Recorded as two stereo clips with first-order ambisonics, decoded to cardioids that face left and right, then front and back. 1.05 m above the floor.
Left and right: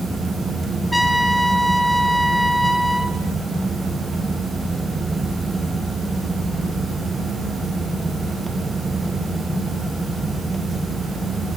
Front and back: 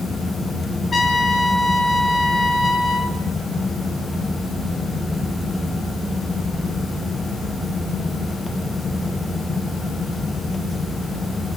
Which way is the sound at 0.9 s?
Straight ahead.